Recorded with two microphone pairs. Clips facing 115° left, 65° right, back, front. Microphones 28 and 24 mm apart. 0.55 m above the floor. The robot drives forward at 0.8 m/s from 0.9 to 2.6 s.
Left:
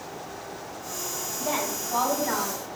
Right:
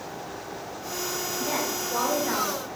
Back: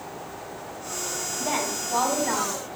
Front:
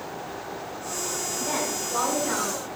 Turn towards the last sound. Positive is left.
turn(degrees=-175)